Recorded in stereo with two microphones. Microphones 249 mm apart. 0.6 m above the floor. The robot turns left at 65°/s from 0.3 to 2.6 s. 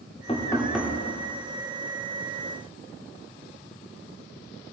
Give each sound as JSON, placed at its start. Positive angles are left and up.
{"t": 0.3, "sound": "knocking", "azimuth_deg": 30, "distance_m": 1.4}